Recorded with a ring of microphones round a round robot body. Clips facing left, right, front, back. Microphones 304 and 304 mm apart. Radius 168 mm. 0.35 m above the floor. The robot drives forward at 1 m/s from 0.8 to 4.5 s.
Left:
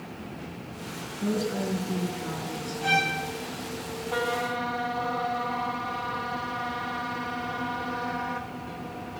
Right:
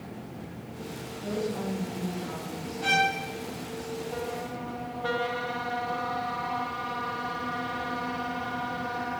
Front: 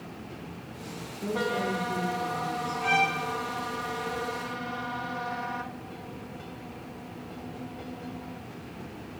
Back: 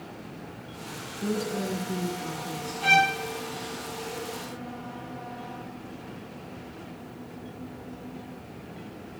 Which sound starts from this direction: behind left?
A woman speaking, at 1.2 s.